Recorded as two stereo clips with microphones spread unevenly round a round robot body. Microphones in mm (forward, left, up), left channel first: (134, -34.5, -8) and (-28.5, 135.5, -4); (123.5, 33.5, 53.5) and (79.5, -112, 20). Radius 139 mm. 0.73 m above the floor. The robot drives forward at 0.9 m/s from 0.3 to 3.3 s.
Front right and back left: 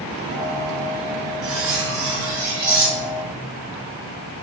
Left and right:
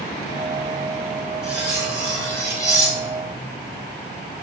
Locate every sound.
1.4 s cutlery clinking: 165° left, 2.5 m; by 3.4 s 170° left, 4.5 m